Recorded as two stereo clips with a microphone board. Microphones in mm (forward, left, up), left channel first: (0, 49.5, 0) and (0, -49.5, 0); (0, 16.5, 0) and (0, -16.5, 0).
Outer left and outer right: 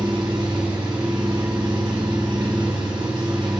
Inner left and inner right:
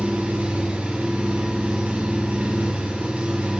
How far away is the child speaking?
I don't hear a child speaking.